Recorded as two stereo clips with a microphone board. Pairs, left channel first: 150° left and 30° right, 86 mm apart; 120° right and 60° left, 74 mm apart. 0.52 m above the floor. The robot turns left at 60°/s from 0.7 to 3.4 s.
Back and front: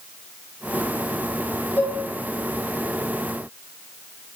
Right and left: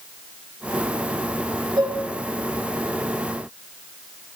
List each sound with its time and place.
1.8 s dishes clattering: 80° left, 4.5 m; by 2.0 s 65° left, 4.5 m